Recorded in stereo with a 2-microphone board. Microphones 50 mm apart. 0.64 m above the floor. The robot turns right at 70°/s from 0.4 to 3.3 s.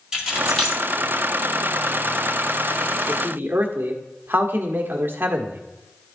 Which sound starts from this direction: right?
A man speaking, at 3.1 s.